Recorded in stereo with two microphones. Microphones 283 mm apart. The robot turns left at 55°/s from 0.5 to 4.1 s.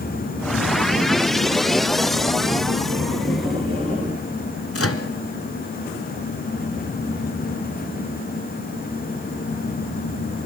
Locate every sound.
4.7 s a microwave: 55° left (ahead or behind), 2.0 m